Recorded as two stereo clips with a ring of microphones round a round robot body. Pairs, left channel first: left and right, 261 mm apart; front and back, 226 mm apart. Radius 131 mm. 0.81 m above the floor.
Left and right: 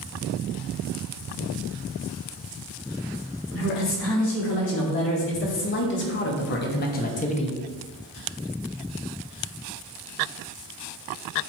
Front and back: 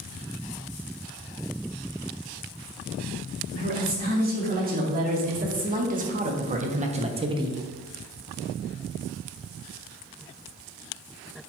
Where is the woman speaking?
130° left, 3 m.